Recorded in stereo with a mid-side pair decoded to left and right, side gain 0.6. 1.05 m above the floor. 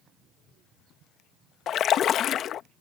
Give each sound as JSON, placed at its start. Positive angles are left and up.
{"t": 1.7, "sound": "a splash", "azimuth_deg": 50}